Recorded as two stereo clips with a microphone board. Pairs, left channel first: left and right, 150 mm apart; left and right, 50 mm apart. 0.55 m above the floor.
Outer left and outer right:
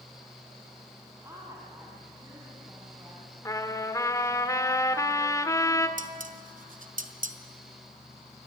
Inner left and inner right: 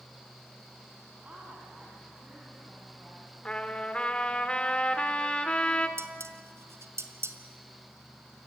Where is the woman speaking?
20° right (ahead or behind), 4 m.